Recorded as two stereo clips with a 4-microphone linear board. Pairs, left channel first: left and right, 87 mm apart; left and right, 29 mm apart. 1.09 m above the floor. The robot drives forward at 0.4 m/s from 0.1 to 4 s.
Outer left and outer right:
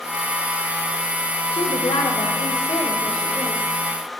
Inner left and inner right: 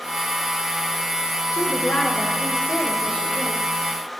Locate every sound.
1.5 s a woman speaking: 80° left, 0.5 m; by 3.6 s 30° left (ahead or behind), 1.0 m